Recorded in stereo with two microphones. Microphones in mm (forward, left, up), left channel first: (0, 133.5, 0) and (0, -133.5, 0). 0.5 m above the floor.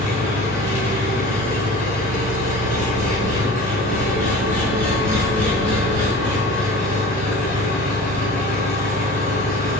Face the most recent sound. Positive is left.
turn(degrees=-30)  # may be behind; listen again after turning